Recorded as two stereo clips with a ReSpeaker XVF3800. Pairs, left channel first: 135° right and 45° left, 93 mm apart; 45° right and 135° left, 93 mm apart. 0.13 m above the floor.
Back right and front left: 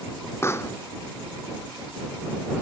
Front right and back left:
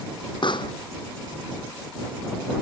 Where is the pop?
75° right.